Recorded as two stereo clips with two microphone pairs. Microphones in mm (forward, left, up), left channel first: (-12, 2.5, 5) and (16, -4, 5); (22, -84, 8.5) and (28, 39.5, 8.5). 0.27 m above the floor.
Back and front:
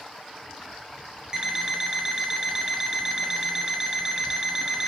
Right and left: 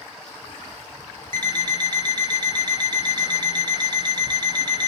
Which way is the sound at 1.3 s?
45° left.